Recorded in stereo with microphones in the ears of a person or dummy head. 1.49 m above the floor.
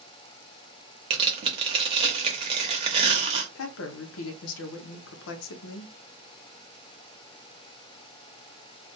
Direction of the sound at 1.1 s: 30° right (ahead or behind).